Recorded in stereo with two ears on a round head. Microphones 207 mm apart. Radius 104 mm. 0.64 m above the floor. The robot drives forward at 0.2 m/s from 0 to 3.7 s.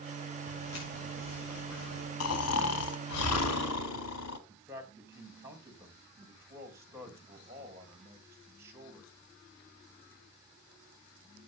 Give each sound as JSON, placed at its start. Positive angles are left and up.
{"t": 0.5, "sound": "footsteps", "side_deg": 85, "distance_m": 7.0}
{"t": 2.2, "sound": "snoring", "side_deg": 75, "distance_m": 1.6}
{"t": 4.5, "sound": "a man speaking", "side_deg": -10, "distance_m": 3.5}